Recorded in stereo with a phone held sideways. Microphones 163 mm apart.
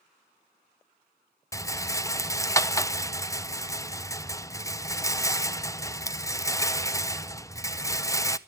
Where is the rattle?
20° left (ahead or behind), 0.6 m.